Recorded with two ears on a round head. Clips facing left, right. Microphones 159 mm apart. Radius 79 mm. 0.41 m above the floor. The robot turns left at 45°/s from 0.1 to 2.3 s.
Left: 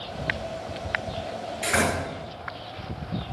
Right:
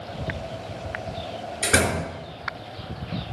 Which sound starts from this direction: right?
A door slam, at 1.6 s.